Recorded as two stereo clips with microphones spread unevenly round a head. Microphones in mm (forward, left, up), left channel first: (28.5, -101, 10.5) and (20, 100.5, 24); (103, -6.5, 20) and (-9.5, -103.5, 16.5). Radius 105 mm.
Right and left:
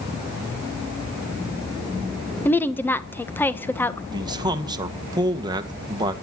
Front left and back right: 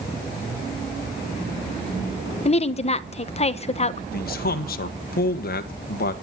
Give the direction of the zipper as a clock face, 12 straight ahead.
No zipper in this recording.